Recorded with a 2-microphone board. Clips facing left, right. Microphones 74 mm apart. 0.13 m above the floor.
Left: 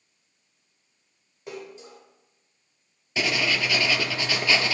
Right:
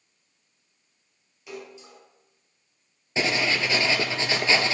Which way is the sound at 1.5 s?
35° left (ahead or behind).